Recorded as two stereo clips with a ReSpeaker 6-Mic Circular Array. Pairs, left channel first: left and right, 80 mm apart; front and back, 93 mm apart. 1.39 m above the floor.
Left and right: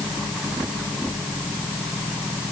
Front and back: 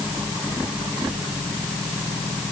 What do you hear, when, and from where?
Only background noise.